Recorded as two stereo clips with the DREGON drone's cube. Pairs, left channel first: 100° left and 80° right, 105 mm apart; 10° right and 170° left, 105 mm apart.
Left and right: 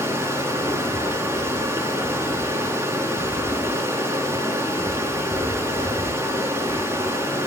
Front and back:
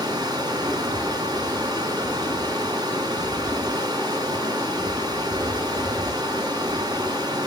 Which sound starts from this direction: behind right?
Running water, at 0.0 s.